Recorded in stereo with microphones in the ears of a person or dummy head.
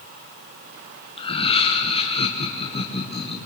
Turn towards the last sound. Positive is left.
turn(degrees=25)  # may be behind; listen again after turning